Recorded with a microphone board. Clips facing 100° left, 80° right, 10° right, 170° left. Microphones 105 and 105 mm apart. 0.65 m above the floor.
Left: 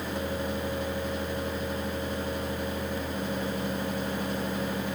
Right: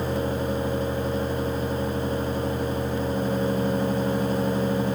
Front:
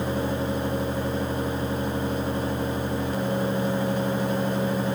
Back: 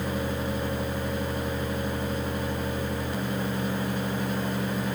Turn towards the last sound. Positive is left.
No sound to turn to.